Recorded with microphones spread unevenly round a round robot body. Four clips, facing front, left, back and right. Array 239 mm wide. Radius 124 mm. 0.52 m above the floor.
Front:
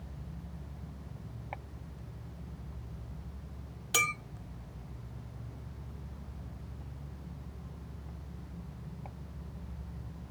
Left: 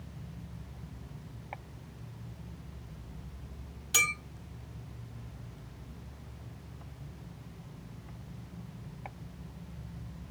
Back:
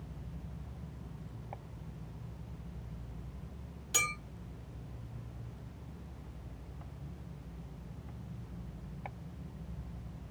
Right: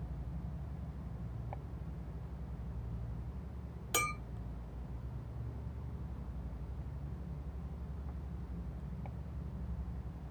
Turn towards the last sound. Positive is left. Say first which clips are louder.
# left 2 dB, front 5 dB
turn(degrees=-45)